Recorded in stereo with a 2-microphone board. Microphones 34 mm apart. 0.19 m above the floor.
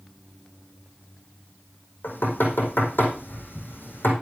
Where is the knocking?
75° left (ahead or behind), 5 m.